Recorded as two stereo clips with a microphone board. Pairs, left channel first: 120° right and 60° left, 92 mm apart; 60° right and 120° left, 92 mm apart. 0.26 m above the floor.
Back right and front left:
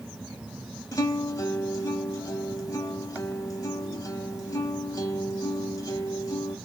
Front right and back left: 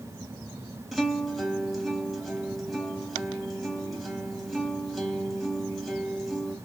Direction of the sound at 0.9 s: 150° right.